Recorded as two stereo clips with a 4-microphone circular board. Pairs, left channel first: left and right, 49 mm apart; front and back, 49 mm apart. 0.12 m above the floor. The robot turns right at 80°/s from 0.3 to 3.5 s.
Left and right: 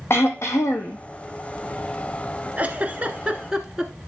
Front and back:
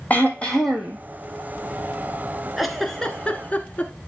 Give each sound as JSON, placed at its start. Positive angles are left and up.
{"t": 0.1, "sound": "throat clearing", "azimuth_deg": 55, "distance_m": 1.4}
{"t": 2.6, "sound": "a giggle", "azimuth_deg": -100, "distance_m": 1.0}